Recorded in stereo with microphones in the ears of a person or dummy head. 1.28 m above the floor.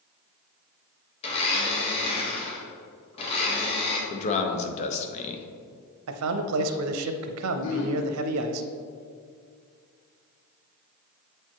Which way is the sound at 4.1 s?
45° left (ahead or behind).